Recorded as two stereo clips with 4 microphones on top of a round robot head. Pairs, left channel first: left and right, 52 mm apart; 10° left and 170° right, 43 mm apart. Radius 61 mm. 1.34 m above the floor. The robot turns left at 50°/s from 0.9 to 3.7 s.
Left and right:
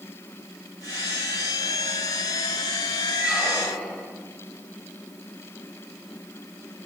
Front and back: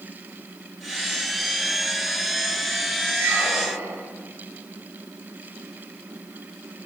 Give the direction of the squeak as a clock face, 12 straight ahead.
5 o'clock.